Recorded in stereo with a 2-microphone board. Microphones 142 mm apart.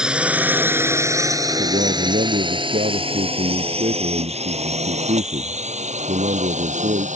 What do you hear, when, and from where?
0.0 s a drone: 5° right (ahead or behind); by 7.2 s 60° right (ahead or behind)
1.6 s a man speaking: 65° right (ahead or behind)